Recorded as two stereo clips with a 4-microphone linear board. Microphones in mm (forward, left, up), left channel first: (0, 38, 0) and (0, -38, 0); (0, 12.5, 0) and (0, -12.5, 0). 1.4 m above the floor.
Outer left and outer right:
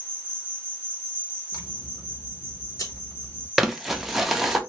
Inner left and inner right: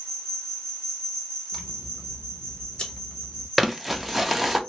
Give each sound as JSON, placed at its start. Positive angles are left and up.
{"t": 0.0, "sound": "an insect", "side_deg": 30, "distance_m": 1.3}
{"t": 1.5, "sound": "scissors", "side_deg": 45, "distance_m": 1.0}
{"t": 3.6, "sound": "crumpling", "side_deg": -5, "distance_m": 0.6}